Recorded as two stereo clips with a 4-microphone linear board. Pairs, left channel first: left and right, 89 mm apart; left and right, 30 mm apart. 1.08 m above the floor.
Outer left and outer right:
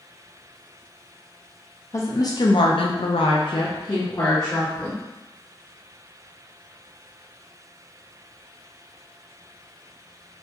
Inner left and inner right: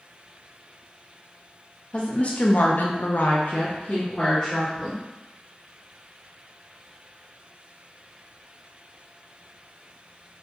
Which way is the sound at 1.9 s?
35° left (ahead or behind).